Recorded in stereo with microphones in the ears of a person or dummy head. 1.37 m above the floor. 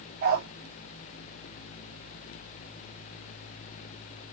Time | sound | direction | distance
0.2 | a dog barking | 50° right (ahead or behind) | 1.1 m